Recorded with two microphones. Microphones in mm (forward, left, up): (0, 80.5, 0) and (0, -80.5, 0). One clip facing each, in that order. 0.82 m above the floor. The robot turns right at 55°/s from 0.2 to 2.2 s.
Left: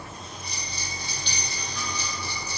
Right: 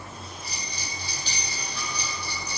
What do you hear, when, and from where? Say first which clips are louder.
0.4 s a bell: even; straight behind, 2 m; by 2.6 s 80° right, 2 m